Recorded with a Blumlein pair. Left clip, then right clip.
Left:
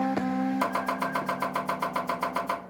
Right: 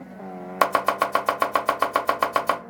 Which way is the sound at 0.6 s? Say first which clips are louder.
Right 11 dB; 35° right.